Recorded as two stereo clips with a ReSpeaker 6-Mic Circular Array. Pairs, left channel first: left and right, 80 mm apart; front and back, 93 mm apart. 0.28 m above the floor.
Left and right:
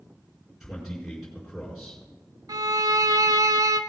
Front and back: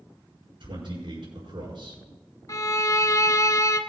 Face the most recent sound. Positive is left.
turn(degrees=-50)